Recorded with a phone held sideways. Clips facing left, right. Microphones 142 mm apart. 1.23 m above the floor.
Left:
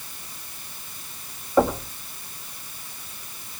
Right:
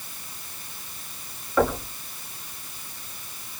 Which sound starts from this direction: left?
Knocking, at 1.6 s.